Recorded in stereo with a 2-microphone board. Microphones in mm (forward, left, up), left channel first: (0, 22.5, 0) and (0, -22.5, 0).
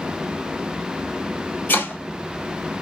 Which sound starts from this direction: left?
Chopping, at 1.7 s.